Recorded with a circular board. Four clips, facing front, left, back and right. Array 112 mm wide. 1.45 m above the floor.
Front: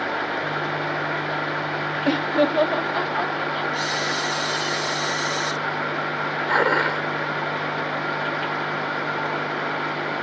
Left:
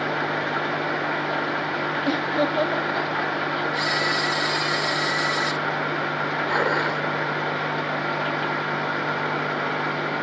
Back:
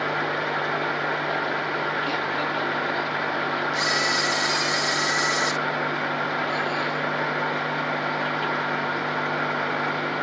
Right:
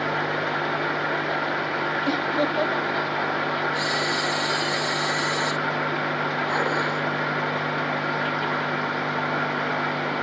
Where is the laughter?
Straight ahead; by 3.6 s 10° left.